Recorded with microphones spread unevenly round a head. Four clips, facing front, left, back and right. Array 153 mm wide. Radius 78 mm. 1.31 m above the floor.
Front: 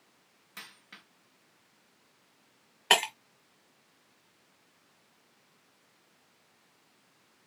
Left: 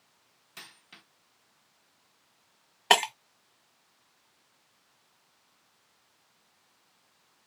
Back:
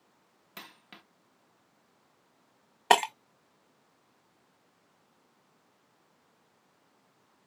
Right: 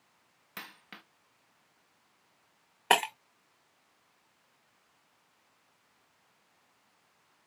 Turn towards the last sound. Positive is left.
turn(degrees=170)